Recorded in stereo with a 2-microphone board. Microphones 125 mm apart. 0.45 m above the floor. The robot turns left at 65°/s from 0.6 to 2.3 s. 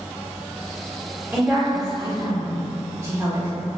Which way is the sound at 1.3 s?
20° right (ahead or behind).